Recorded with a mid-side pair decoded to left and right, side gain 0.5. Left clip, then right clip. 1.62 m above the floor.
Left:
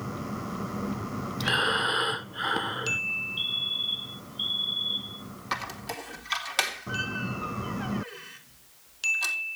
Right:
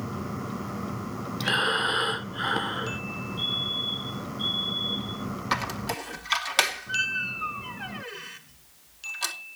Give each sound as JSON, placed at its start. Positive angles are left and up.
{"t": 1.4, "sound": "breathing", "azimuth_deg": -5, "distance_m": 1.0}
{"t": 3.4, "sound": "a fire alarm", "azimuth_deg": 65, "distance_m": 3.0}
{"t": 5.5, "sound": "a squeak", "azimuth_deg": -30, "distance_m": 2.5}